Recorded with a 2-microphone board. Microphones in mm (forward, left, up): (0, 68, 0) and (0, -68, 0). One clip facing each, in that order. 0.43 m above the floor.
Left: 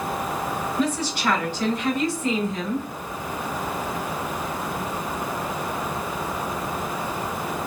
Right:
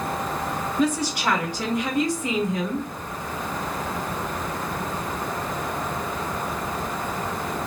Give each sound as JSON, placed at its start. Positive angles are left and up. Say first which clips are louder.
{"t": 0.8, "sound": "a woman speaking", "louder": "right 3 dB", "side_deg": -10, "distance_m": 1.5}